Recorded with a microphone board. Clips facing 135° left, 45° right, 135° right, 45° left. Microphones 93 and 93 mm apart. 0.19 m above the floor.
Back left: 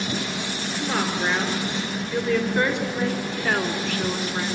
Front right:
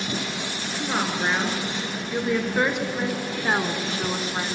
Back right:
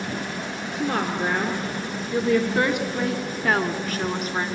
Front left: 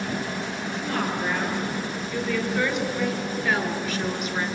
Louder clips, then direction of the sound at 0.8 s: Even, back right 3 dB; 125° right.